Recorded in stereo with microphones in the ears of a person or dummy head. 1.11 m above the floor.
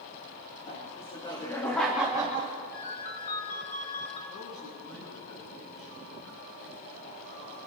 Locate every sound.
0.7 s laughter: 40° left (ahead or behind), 2.5 m; by 2.5 s 30° right (ahead or behind), 1.6 m
2.7 s a ringtone: 45° left (ahead or behind), 3 m
4.3 s a man speaking: 40° left (ahead or behind), 8 m